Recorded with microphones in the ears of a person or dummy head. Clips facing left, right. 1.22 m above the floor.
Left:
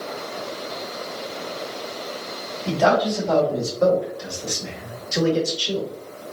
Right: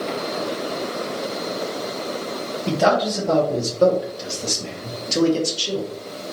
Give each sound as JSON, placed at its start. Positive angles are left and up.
{"t": 2.7, "sound": "a man speaking", "side_deg": -25, "distance_m": 2.0}